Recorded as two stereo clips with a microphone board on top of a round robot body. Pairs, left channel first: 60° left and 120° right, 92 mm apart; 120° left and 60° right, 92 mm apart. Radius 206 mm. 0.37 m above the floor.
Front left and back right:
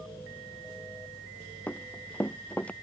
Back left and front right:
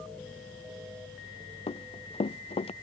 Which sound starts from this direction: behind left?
Running footsteps, at 1.7 s.